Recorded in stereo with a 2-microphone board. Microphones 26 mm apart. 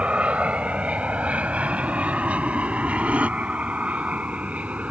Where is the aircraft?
50° right (ahead or behind); by 4.9 s 60° right (ahead or behind).